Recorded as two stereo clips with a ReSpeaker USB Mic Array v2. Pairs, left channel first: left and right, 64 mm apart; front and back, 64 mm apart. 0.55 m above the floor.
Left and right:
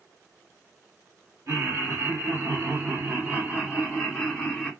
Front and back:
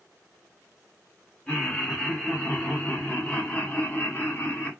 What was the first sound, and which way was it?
Laughter, 85° right.